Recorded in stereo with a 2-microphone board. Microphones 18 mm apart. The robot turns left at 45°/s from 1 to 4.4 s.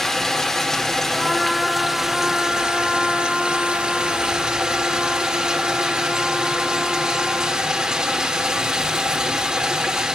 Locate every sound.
0.0 s running water: 35° left, 2.5 m; by 10.2 s 120° right, 2.5 m
1.1 s a trumpet: 170° right, 5 m; by 7.6 s 40° left, 5 m